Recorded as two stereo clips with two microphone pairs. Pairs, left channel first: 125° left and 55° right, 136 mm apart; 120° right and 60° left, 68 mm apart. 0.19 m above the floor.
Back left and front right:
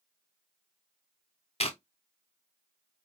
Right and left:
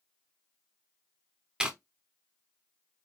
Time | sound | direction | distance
1.6 | chewing | 135° left | 0.5 m